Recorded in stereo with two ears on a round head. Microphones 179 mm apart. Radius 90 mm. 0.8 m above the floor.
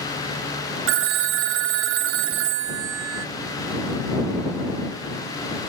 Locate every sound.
0.9 s a phone ringing: 70° right (ahead or behind)